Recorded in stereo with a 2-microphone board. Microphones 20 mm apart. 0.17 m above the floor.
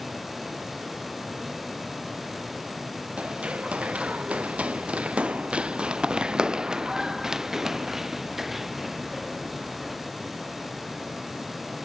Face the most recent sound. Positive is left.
turn(degrees=-5)  # may be behind; listen again after turning